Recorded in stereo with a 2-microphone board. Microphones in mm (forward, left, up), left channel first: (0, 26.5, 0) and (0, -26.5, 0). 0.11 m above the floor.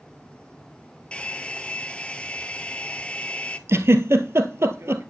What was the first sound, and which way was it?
A hair dryer, 20° left (ahead or behind).